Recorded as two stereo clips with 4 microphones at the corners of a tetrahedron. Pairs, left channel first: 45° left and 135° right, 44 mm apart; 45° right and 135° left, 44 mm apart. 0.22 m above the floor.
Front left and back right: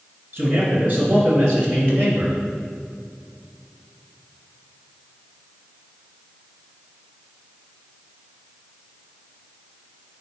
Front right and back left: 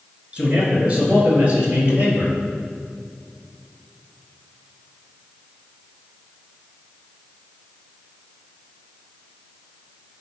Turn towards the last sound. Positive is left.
turn(degrees=170)